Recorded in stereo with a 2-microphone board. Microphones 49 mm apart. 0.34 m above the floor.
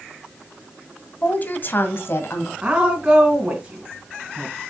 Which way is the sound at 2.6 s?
20° right (ahead or behind).